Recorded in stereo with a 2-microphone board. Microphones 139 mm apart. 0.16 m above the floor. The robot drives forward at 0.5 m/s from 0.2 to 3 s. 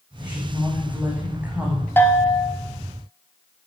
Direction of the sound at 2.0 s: 15° left (ahead or behind).